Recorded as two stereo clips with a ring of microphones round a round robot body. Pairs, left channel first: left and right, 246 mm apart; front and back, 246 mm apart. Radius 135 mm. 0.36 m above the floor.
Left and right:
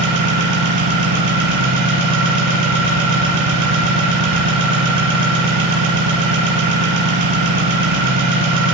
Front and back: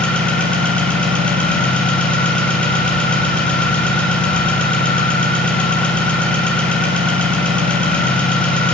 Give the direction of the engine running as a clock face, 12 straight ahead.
3 o'clock.